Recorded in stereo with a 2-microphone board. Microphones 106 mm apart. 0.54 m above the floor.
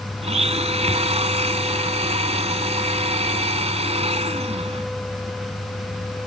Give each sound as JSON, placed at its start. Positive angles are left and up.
{"t": 0.2, "sound": "a blender", "side_deg": -85}